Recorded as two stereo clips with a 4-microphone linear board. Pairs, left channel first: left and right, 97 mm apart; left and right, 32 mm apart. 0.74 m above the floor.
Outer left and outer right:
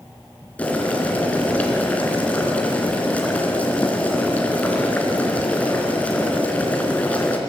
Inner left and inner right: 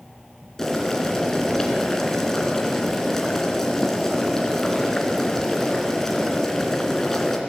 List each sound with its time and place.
0.6 s boiling: 15° left (ahead or behind), 3 m